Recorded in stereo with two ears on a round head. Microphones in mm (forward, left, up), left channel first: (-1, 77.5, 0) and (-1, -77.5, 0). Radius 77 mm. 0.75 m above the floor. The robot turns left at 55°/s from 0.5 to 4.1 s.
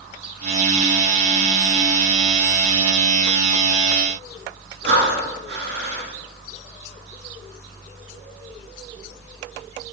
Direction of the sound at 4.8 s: 70° right (ahead or behind).